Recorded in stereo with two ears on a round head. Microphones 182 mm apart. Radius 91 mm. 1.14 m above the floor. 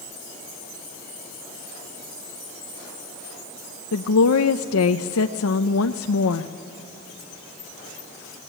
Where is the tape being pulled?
No tape being pulled in this recording.